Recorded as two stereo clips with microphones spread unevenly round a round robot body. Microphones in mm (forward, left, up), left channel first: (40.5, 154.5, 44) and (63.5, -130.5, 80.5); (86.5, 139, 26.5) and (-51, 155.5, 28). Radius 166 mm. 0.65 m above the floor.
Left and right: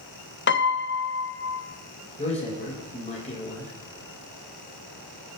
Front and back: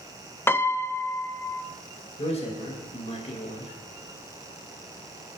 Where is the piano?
65° left, 0.8 m.